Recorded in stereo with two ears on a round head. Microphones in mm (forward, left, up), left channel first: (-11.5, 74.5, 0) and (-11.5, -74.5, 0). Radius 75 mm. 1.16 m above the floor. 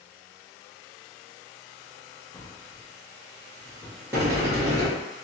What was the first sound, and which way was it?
A drawer, 20° left (ahead or behind).